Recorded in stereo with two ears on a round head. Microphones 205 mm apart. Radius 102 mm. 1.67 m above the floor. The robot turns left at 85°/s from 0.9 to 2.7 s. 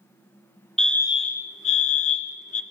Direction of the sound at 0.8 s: 175° left.